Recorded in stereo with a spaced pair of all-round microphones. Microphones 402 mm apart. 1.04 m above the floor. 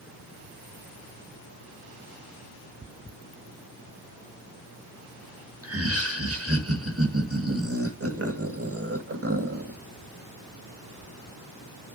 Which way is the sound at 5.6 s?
35° right (ahead or behind).